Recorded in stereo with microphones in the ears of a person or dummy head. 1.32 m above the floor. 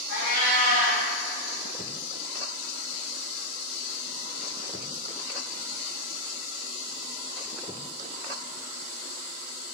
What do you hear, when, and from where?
0.1 s a cat meowing: 45° left (ahead or behind), 1.3 m